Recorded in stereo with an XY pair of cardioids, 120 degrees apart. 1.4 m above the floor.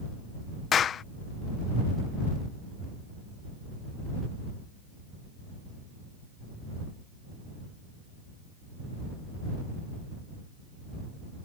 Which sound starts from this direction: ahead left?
A clap, at 0.7 s.